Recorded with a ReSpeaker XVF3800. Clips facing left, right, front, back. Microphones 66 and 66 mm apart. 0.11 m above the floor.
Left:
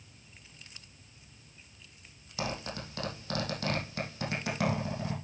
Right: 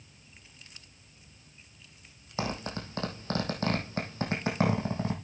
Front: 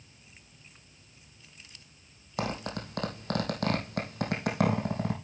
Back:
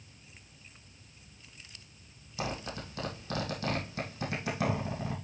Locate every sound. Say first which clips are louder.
2.4 s a zipper: right 2 dB, front 3 dB; 35° right, 3.5 m